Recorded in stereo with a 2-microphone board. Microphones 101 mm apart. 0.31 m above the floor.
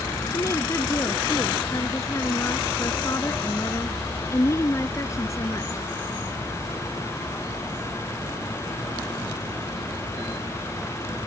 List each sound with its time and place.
0.3 s a woman speaking: 30° left (ahead or behind)